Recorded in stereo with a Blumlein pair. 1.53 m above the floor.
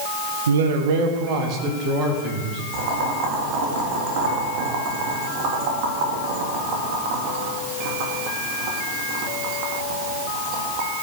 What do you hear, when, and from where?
0.5 s a man speaking: 65° right, 1.4 m; by 2.6 s 25° right, 4 m
2.7 s boiling: 45° right, 3 m